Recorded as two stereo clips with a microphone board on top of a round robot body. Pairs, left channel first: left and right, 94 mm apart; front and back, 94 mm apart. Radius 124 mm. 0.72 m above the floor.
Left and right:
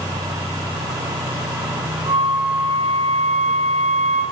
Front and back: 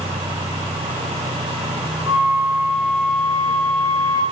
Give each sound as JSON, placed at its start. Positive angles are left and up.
{"t": 2.1, "sound": "a flute", "azimuth_deg": -105, "distance_m": 0.5}